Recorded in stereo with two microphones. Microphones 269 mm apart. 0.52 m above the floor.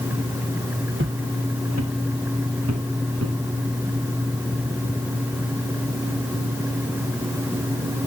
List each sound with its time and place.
1.0 s footsteps: 45° right (ahead or behind), 2 m; by 3.4 s 65° right (ahead or behind), 4 m